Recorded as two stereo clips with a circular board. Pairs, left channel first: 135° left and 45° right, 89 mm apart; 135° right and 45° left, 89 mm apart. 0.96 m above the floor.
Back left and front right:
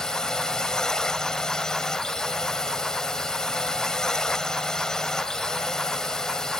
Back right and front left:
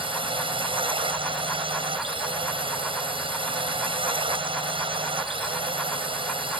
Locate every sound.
0.0 s a drone: 50° left